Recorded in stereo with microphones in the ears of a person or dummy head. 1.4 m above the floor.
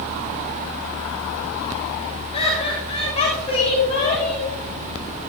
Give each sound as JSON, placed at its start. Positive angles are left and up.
{"t": 2.3, "sound": "laughter", "side_deg": 30, "distance_m": 6.5}